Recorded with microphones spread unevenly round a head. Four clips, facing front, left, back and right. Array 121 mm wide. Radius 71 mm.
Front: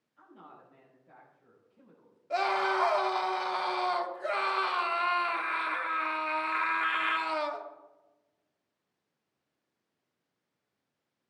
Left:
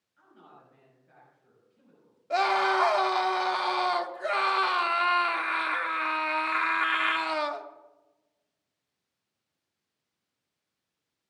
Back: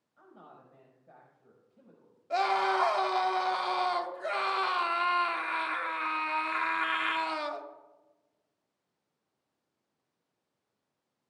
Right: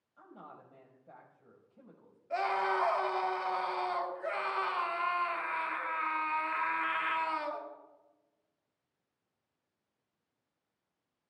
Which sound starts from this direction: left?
A scream, at 2.3 s.